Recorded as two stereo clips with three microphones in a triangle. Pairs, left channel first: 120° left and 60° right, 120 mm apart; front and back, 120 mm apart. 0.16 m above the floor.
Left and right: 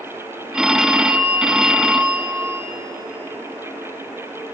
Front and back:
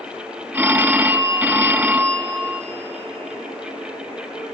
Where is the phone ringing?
135° right, 0.6 m.